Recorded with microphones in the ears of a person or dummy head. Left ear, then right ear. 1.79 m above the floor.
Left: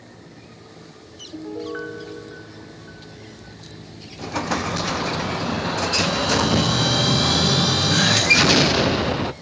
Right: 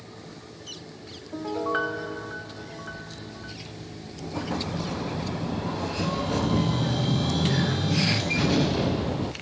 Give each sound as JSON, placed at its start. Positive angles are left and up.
{"t": 1.3, "sound": "a piano", "side_deg": -20, "distance_m": 0.7}
{"t": 4.2, "sound": "an explosion", "side_deg": 55, "distance_m": 0.7}